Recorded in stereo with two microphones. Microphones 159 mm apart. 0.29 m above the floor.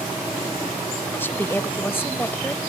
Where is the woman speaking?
15° left (ahead or behind).